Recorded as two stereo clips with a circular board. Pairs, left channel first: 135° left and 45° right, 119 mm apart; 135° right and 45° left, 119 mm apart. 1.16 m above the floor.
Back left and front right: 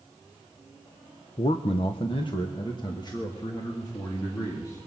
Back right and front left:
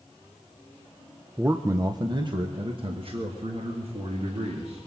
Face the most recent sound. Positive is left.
turn(degrees=75)